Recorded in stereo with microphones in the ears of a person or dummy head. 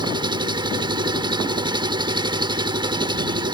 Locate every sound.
0.0 s an engine running: 25° right (ahead or behind)